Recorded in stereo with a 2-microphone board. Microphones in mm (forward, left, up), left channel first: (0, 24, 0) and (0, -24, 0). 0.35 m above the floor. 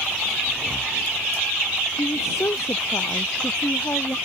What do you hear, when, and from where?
0.5 s breathing: 20° right (ahead or behind)
2.0 s a woman speaking: 70° left (ahead or behind)